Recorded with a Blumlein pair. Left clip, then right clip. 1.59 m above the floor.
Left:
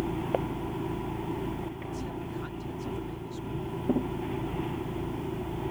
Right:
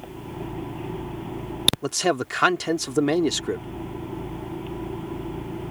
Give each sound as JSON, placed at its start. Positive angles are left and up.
{"t": 1.8, "sound": "a man speaking", "azimuth_deg": -40}